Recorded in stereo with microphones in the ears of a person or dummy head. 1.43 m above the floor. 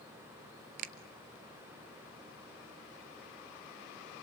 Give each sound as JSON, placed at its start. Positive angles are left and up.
{"t": 0.8, "sound": "a finger snap", "side_deg": -55, "distance_m": 0.9}